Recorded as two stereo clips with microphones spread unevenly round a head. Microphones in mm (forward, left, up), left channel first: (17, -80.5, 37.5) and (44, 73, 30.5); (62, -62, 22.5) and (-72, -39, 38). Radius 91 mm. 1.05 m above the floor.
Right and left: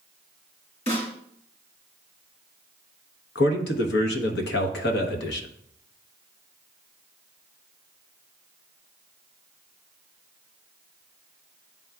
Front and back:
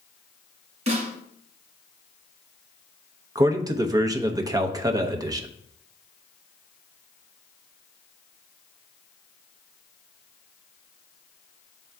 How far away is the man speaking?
About 1.0 m.